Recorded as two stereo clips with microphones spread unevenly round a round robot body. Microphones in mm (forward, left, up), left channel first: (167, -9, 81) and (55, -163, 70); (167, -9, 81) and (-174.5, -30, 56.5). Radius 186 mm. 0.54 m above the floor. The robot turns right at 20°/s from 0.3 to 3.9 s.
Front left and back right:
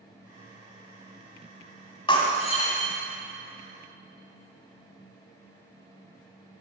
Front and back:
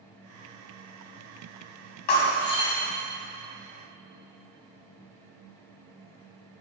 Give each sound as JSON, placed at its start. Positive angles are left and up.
{"t": 2.1, "sound": "breaking glass", "azimuth_deg": -15, "distance_m": 2.5}